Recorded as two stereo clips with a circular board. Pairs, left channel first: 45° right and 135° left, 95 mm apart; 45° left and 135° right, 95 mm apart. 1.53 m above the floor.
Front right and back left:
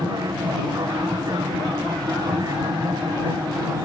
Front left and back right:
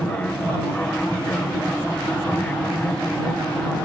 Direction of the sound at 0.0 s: 115° left.